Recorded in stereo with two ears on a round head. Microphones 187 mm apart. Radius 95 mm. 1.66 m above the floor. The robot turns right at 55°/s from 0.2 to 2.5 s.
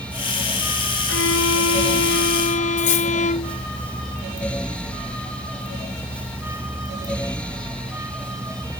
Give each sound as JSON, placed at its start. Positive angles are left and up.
{"t": 1.1, "sound": "a violin", "azimuth_deg": 60}
{"t": 2.8, "sound": "cutlery clinking", "side_deg": 35}